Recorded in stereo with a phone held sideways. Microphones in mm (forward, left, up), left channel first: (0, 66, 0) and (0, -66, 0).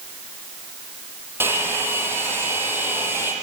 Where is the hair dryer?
15° right (ahead or behind), 7.5 m.